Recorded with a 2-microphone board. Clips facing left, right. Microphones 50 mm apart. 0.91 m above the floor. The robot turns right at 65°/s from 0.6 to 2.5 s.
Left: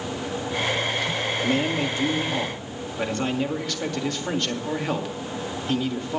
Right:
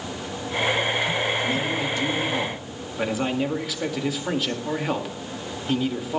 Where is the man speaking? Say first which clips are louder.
Left 1 dB; 115° left, 1.9 m; by 6.2 s 175° right, 1.9 m.